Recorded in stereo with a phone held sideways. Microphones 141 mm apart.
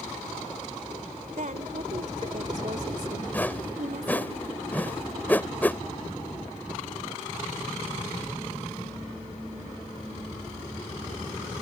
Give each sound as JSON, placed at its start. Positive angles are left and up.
{"t": 1.4, "sound": "a woman speaking", "side_deg": -70}
{"t": 3.3, "sound": "a whoosh", "side_deg": 10}